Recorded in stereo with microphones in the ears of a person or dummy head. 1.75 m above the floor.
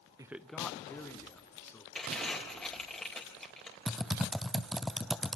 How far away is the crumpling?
About 4 m.